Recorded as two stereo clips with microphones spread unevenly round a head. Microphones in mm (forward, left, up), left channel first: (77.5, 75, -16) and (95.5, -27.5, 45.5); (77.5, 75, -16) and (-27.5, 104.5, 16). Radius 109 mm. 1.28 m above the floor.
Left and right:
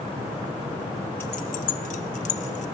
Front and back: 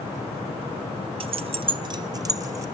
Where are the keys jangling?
165° right, 0.6 m; by 2.6 s 105° left, 2 m.